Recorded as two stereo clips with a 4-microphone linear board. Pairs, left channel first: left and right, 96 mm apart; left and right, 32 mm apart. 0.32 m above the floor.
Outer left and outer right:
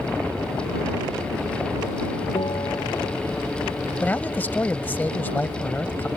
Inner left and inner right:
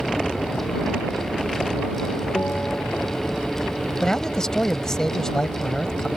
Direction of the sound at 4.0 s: 20° left (ahead or behind).